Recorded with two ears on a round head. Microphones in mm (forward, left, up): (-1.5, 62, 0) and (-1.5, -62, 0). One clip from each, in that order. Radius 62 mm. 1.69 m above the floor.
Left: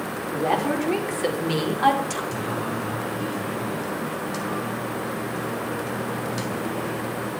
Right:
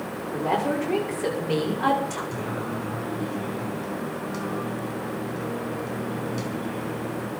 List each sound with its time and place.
0.3 s a woman speaking: 60° left (ahead or behind), 5.5 m; by 2.2 s 85° left, 5.5 m
2.3 s singing: 40° left (ahead or behind), 3.5 m